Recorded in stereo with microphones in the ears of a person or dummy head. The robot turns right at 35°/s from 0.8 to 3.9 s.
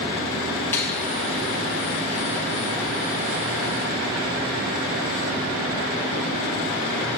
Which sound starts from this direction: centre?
A finger snap, at 0.7 s.